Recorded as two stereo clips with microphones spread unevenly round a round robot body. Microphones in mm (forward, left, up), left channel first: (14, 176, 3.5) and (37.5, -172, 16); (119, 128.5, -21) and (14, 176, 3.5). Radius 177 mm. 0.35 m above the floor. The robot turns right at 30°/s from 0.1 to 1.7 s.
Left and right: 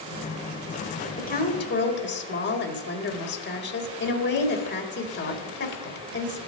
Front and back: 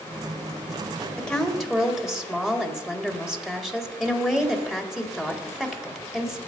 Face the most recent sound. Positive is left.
turn(degrees=55)